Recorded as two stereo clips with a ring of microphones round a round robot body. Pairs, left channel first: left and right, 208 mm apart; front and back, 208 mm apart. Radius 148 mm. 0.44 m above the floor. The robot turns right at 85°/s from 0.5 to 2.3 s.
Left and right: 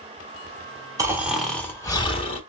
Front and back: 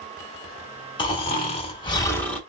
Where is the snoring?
35° right, 1.3 m; by 2.4 s 75° left, 1.3 m.